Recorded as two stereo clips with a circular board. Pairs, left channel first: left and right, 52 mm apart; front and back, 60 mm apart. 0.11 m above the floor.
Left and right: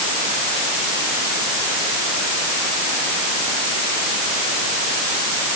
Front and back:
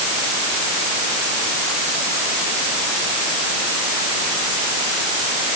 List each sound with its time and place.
Only background noise.